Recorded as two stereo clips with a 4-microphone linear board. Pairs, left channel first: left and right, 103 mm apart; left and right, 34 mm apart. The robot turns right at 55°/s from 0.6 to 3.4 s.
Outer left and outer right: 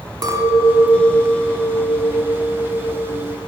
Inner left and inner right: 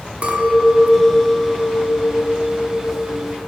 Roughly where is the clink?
Right.